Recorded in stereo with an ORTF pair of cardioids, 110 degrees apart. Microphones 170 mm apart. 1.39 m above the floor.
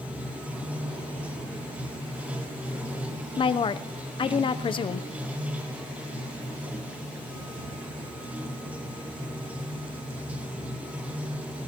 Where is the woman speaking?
30° left, 0.7 m.